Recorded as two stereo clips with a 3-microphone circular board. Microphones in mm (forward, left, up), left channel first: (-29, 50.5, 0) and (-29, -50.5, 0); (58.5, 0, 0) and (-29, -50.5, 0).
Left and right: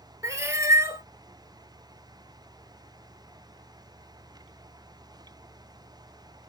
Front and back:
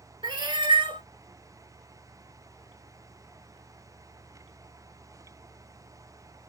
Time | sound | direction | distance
0.2 | a cat meowing | 145° right | 0.8 m